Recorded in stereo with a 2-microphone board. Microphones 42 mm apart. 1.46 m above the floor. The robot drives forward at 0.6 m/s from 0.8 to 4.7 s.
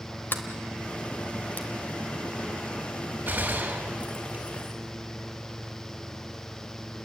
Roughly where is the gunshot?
Right.